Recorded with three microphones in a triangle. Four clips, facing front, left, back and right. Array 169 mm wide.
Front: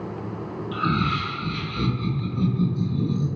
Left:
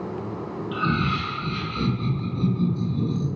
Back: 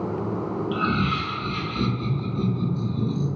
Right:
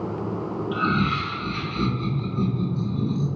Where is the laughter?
130° right, 1.3 m; by 3.2 s 145° right, 2.5 m.